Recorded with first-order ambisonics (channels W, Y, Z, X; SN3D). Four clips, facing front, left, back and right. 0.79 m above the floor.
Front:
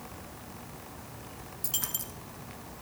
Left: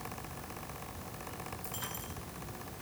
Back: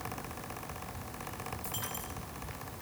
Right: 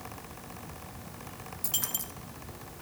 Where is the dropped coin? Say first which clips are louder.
Right 6 dB, front 3 dB; 45° right, 2.5 m.